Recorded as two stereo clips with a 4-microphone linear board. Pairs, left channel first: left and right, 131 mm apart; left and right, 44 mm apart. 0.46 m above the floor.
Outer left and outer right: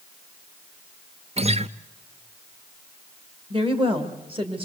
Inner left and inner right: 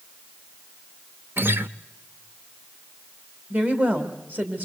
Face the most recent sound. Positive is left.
turn(degrees=-40)  # may be behind; listen again after turning